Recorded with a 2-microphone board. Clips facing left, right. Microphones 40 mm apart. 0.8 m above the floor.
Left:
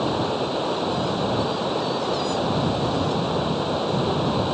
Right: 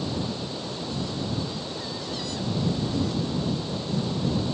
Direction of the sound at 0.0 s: 45° left (ahead or behind).